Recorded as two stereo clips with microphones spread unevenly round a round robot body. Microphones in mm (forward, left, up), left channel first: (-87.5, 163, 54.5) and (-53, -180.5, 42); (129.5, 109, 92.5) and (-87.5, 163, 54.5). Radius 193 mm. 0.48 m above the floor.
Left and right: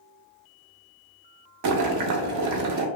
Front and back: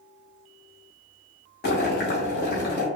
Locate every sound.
1.6 s boiling: 60° right, 0.5 m